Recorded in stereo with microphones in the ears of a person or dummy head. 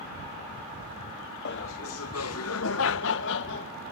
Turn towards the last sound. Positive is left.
turn(degrees=60)  # may be behind; listen again after turning